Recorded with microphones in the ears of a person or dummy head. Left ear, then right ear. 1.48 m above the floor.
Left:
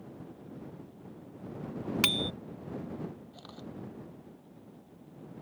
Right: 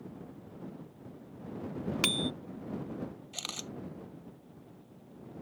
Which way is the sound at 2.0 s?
5° left (ahead or behind).